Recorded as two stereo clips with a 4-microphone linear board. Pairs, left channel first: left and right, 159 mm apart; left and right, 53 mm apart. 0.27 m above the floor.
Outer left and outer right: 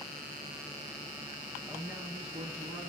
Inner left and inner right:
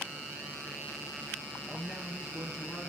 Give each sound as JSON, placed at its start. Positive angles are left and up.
{"t": 1.7, "sound": "a man speaking", "side_deg": -5, "distance_m": 5.5}